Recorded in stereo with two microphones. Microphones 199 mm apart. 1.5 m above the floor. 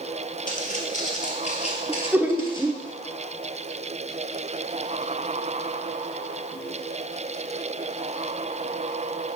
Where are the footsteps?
45° left (ahead or behind), 2.0 m; by 2.9 s 20° left (ahead or behind), 1.8 m.